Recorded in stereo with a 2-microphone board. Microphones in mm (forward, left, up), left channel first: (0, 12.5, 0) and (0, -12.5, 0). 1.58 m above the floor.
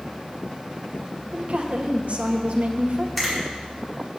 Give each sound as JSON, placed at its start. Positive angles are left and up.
{"t": 1.3, "sound": "a woman speaking", "side_deg": -55, "distance_m": 1.7}
{"t": 3.2, "sound": "a finger snap", "side_deg": 15, "distance_m": 5.0}